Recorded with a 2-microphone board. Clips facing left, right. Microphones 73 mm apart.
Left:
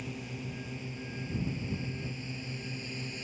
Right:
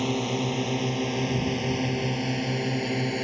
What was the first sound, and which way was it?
A drone, 80° right.